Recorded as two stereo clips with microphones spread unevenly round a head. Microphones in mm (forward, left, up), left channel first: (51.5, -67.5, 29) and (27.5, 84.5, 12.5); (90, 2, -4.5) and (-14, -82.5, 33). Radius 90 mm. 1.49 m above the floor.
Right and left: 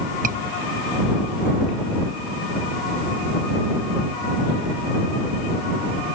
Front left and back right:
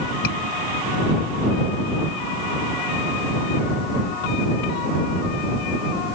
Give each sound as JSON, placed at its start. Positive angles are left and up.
{"t": 0.2, "sound": "a scream", "azimuth_deg": 65}